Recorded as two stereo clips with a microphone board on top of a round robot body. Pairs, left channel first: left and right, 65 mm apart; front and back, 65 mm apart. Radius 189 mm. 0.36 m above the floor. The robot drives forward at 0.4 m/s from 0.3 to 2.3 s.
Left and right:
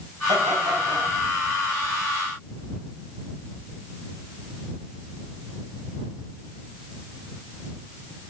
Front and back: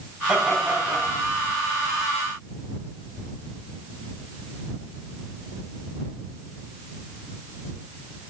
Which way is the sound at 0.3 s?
105° right.